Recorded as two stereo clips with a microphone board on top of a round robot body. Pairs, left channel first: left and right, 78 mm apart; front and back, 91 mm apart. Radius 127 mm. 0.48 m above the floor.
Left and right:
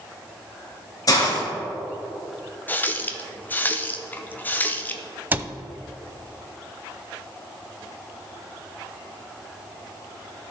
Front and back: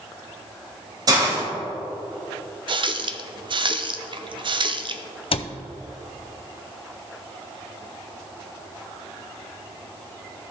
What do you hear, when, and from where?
1.1 s a hiss: 135° left, 2.5 m
2.7 s a running tap: 155° left, 0.7 m
5.3 s a cupboard door: 25° right, 0.6 m